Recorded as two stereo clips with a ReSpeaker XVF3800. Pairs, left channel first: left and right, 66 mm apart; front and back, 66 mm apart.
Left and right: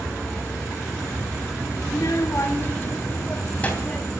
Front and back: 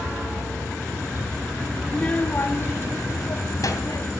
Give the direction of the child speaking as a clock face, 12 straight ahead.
9 o'clock.